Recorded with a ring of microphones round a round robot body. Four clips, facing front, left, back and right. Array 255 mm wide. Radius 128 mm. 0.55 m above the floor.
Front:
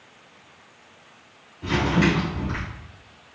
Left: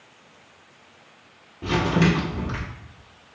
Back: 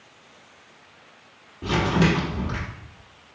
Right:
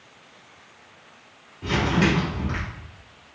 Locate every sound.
1.6 s crumpling: 140° left, 1.7 m